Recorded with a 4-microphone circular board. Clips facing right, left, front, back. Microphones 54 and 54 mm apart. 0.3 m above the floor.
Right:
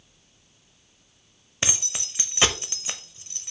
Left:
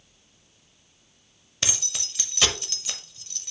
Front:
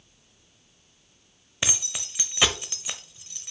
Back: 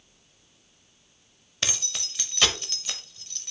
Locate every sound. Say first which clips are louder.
1.6 s keys jangling: right 2 dB, front 1 dB; 60° right, 0.7 m